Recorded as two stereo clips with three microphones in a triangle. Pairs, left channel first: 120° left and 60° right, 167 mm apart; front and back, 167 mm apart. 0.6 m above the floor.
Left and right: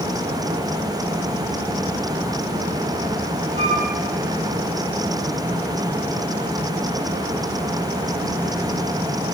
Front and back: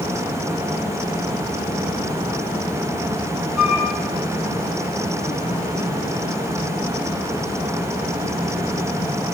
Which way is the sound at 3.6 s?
90° right.